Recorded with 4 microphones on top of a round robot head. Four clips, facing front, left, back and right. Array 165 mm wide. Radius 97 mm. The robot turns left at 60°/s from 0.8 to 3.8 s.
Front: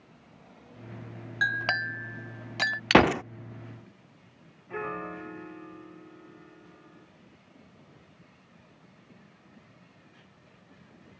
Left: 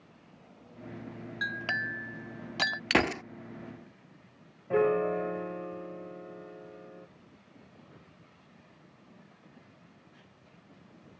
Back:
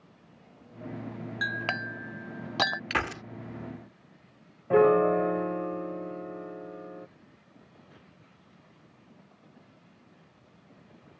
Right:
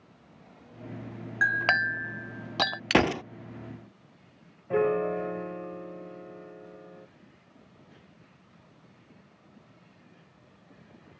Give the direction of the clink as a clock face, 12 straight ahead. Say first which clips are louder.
Right 9 dB, front 4 dB; 2 o'clock.